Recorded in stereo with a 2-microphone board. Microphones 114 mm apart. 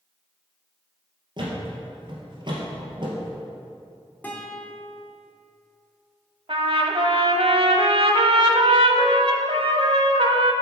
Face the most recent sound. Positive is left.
turn(degrees=-55)  # may be behind; listen again after turning